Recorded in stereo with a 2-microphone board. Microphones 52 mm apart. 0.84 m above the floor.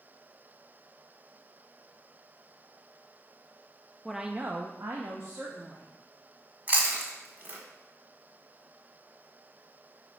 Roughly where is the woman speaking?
Centre.